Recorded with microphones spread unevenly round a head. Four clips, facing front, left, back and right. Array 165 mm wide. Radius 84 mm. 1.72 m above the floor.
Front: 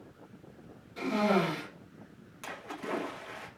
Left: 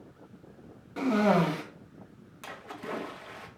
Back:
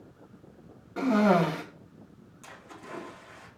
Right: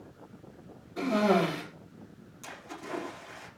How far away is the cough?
About 3 m.